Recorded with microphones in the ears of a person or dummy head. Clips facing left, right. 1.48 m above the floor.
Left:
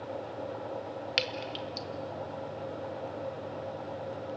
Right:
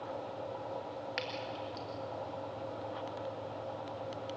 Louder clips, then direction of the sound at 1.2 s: Left 4 dB; 35° left (ahead or behind).